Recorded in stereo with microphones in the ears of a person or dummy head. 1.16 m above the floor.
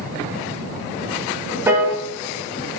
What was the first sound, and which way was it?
A piano, 10° right (ahead or behind).